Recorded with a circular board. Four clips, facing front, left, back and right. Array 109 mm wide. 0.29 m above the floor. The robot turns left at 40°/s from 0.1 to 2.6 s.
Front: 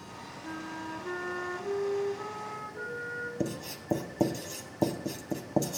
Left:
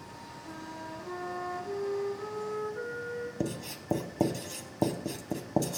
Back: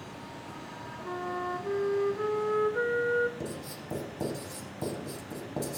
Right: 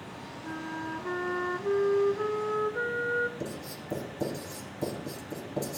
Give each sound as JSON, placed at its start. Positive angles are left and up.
{"t": 0.4, "sound": "a flute", "azimuth_deg": -55, "distance_m": 0.6}
{"t": 3.4, "sound": "writing", "azimuth_deg": 60, "distance_m": 0.8}